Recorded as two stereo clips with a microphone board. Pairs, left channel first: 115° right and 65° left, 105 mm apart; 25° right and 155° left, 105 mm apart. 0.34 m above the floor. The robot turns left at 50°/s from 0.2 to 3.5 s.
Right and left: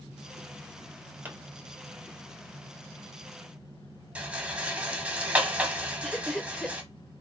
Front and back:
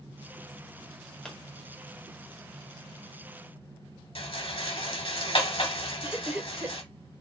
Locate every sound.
1.2 s a pop: 50° left, 1.5 m; by 1.4 s 45° left, 1.5 m
4.2 s a rattle: 10° right, 1.3 m
6.0 s laughter: 175° left, 0.8 m